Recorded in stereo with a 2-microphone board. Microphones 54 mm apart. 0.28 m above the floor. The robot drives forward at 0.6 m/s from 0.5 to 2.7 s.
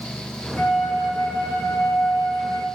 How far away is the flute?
About 4 m.